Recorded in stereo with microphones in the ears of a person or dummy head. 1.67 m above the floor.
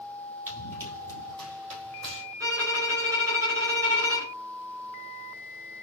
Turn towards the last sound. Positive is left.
turn(degrees=-15)  # may be behind; listen again after turning